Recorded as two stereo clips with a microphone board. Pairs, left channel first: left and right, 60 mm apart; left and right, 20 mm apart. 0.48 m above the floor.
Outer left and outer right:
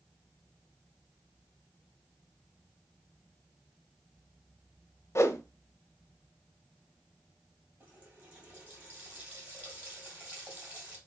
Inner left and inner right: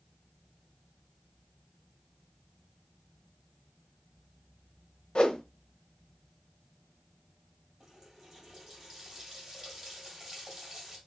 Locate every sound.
5.2 s a whoosh: 50° left (ahead or behind), 0.5 m
7.8 s a running tap: 25° right (ahead or behind), 2.5 m